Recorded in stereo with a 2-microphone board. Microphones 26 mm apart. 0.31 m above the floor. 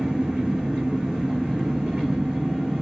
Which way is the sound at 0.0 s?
30° right (ahead or behind).